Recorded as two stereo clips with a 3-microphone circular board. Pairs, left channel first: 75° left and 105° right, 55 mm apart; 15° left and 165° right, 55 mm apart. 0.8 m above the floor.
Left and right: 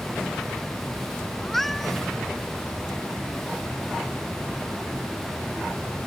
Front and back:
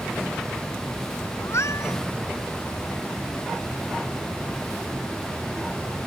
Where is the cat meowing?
10° right.